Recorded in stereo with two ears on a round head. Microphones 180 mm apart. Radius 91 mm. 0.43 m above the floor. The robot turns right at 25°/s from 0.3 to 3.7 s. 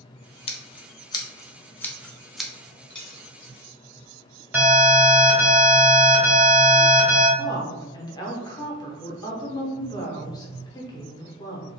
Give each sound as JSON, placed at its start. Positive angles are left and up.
{"t": 0.5, "sound": "scissors", "side_deg": 30, "distance_m": 0.6}
{"t": 2.9, "sound": "a dropped coin", "side_deg": 5, "distance_m": 1.6}
{"t": 4.5, "sound": "an alarm", "side_deg": -10, "distance_m": 1.5}
{"t": 7.4, "sound": "a woman speaking", "side_deg": 20, "distance_m": 0.8}